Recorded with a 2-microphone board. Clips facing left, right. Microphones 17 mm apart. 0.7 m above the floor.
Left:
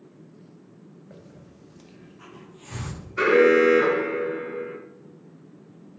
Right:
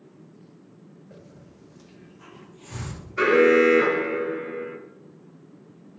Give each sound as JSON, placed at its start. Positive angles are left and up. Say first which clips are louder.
{"t": 1.1, "sound": "a hiss", "louder": "even", "side_deg": 30, "distance_m": 1.5}
{"t": 3.2, "sound": "an alarm", "louder": "even", "side_deg": 5, "distance_m": 1.6}